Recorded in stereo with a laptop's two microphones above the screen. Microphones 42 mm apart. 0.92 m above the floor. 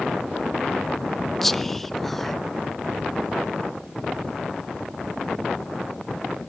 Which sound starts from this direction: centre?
Whispering, at 1.4 s.